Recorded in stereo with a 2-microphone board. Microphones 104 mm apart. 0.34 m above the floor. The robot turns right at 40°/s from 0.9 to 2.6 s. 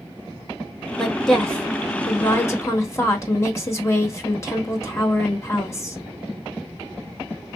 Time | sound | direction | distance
1.0 | a woman speaking | centre (ahead or behind) | 1.1 m